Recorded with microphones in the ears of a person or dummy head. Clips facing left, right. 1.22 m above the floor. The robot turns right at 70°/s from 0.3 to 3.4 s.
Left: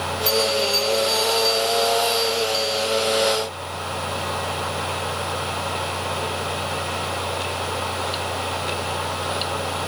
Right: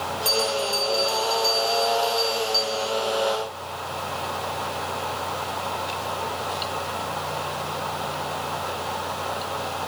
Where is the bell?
175° left, 6 m; by 2.9 s straight ahead, 6 m.